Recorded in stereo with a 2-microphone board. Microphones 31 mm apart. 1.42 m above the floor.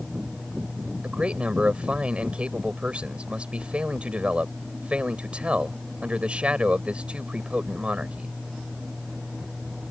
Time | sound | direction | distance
1.0 | a man speaking | 40° right (ahead or behind) | ?